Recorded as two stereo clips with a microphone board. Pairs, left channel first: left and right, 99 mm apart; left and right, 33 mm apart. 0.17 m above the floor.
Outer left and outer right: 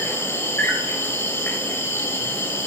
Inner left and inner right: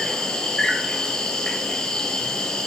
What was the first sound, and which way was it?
An insect, 15° left (ahead or behind).